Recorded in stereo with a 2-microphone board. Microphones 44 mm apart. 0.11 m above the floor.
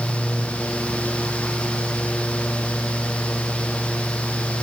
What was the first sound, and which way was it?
Only background noise.